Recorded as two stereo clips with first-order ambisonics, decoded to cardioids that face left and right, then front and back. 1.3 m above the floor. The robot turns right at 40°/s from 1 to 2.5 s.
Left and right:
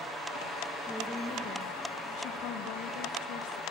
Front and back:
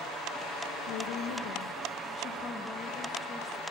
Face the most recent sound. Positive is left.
turn(degrees=70)